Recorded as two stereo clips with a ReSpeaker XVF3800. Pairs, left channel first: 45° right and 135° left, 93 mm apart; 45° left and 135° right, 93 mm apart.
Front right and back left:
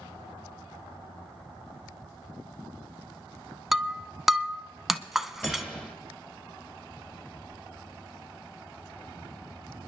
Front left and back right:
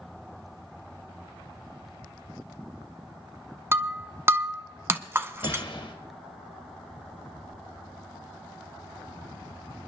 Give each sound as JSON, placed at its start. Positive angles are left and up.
{"t": 3.7, "sound": "breaking glass", "azimuth_deg": -145, "distance_m": 0.7}
{"t": 5.4, "sound": "a gunshot", "azimuth_deg": 30, "distance_m": 3.5}